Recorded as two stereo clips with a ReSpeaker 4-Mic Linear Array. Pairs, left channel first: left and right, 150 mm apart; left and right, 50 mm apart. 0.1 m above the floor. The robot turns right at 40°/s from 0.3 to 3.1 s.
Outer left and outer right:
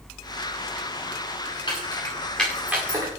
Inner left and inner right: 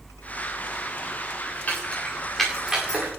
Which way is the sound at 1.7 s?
30° left (ahead or behind).